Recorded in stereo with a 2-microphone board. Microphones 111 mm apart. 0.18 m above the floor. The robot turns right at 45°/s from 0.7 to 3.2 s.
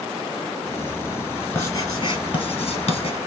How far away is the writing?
About 1.5 m.